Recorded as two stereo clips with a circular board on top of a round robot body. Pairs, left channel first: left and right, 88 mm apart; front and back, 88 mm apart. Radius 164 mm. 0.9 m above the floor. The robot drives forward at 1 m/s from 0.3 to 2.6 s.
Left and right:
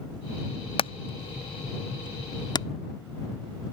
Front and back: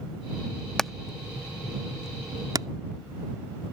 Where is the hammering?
85° left; by 2.7 s 130° left.